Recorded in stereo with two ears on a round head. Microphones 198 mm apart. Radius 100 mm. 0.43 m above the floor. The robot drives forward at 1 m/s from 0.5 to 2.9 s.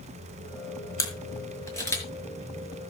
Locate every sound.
1.0 s a camera shutter: 15° left (ahead or behind), 3.5 m